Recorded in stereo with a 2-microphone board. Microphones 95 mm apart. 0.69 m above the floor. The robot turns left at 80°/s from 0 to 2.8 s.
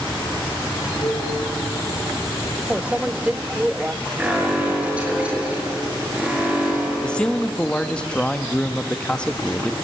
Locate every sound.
1.0 s a cowbell: 55° left (ahead or behind), 3 m; by 1.3 s 80° left, 3 m
2.7 s a microwave: 15° right (ahead or behind), 0.5 m; by 3.9 s 10° right (ahead or behind), 0.5 m
4.2 s an alarm: 15° right (ahead or behind), 7 m
7.0 s a man speaking: 10° left (ahead or behind), 0.8 m